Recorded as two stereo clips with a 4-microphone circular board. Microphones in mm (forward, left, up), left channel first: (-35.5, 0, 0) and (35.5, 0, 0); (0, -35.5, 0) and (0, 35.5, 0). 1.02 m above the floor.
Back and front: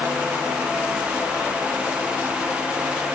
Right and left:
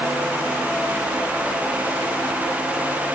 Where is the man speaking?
I don't hear a man speaking.